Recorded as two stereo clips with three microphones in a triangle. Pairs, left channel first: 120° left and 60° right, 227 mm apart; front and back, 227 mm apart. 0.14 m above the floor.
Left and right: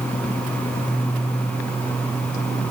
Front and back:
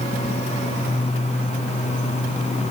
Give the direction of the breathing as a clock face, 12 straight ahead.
I don't hear breathing.